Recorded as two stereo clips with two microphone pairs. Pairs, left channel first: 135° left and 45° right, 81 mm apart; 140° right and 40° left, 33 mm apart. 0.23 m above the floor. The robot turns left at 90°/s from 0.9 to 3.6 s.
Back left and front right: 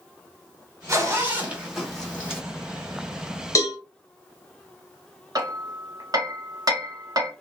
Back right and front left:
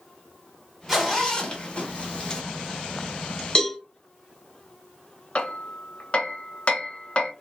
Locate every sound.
0.9 s a zipper: 50° right, 1.0 m; by 2.4 s 175° left, 1.0 m
3.5 s a cowbell: 170° left, 0.6 m; by 3.8 s 165° left, 0.6 m
5.3 s hammering: 85° right, 0.7 m